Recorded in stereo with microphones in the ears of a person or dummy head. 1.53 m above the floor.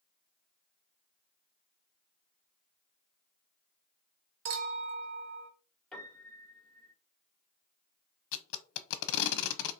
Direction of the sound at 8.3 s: 80° left.